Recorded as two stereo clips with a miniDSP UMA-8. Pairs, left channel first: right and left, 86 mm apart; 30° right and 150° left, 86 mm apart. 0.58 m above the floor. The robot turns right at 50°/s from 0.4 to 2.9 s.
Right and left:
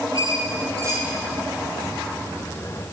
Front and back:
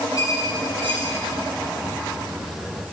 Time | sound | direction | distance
0.1 | a squeak | 125° left | 4 m